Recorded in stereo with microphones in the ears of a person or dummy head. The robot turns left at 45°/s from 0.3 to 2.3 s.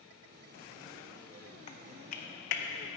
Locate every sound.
1.7 s typing on a keyboard: 35° left (ahead or behind), 0.7 m; by 2.6 s 60° left (ahead or behind), 0.7 m